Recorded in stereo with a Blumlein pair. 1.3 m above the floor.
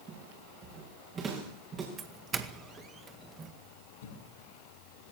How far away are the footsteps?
About 6 m.